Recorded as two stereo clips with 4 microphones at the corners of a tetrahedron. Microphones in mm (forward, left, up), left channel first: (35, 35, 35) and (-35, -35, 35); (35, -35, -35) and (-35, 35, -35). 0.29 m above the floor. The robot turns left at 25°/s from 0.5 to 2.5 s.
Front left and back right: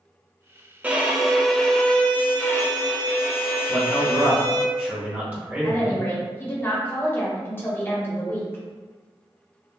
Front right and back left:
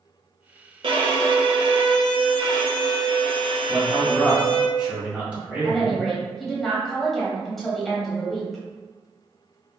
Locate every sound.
0.8 s a violin: 150° left, 0.5 m; by 4.7 s 110° left, 0.5 m
3.7 s a man speaking: 170° right, 1.4 m
5.6 s a woman speaking: 40° left, 0.9 m